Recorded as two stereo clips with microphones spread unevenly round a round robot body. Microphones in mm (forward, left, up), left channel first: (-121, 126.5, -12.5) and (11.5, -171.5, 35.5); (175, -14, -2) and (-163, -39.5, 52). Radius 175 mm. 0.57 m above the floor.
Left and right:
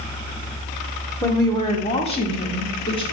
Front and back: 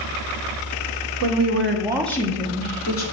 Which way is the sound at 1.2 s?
175° right.